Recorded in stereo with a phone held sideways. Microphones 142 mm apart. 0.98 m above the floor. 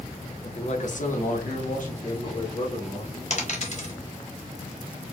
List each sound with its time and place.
0.4 s a man speaking: 40° left (ahead or behind), 0.7 m; by 3.1 s 55° left (ahead or behind), 1.7 m
3.3 s a dropped coin: 55° left (ahead or behind), 0.9 m